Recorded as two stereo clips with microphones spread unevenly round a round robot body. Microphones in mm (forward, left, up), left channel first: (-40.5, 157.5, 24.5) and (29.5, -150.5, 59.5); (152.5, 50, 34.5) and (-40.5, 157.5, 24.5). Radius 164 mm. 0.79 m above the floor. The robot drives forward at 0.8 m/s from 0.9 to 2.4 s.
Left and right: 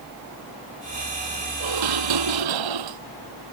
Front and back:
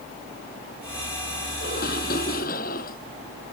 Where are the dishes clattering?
95° right.